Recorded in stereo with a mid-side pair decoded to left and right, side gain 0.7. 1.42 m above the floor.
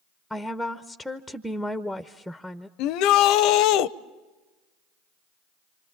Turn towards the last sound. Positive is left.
turn(degrees=65)